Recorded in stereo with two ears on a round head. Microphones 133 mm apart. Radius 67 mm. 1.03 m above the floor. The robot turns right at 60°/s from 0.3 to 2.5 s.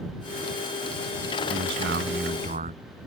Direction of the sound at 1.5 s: 105° right.